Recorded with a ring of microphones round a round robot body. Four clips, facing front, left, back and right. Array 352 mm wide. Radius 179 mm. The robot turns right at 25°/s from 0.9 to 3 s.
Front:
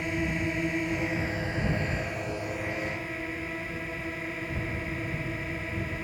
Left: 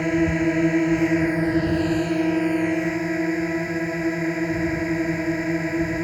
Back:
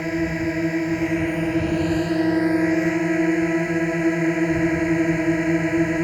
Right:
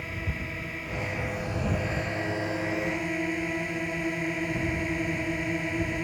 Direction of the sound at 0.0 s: 110° left.